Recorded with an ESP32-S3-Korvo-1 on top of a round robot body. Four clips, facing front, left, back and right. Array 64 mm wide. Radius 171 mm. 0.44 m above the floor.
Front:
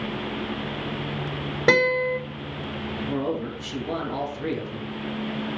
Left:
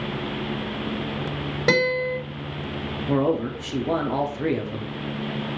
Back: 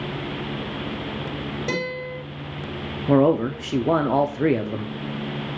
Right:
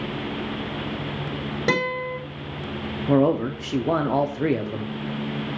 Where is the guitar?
Straight ahead, 5 m.